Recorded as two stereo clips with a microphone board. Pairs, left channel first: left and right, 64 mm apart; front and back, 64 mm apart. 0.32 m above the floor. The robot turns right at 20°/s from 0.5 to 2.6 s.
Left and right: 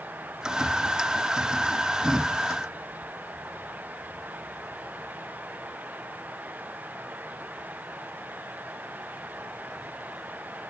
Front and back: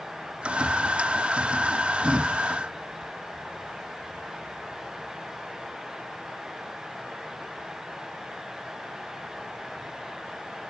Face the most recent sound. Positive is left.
No sound to turn to.